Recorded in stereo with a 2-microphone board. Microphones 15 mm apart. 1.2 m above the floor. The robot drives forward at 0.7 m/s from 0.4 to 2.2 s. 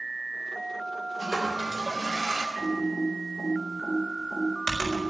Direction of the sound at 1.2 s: 35° right (ahead or behind).